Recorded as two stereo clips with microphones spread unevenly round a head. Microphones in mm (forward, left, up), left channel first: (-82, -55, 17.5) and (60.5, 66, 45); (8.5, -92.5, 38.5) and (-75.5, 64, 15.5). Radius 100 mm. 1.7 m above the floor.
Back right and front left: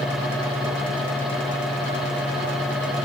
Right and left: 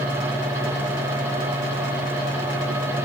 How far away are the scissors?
I don't hear scissors.